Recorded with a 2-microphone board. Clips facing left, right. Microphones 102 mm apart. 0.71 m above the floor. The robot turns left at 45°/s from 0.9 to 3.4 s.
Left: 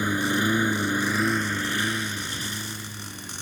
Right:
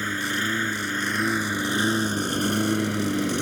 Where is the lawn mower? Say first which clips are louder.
Left 4 dB; 15° left; by 3.4 s 95° right.